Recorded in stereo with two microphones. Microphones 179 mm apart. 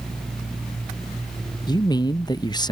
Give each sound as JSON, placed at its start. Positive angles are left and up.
{"t": 1.7, "sound": "a man speaking", "side_deg": 25}